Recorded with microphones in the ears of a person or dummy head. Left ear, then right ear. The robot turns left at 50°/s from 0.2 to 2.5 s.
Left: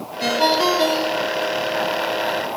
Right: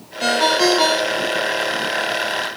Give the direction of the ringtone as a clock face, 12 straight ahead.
12 o'clock.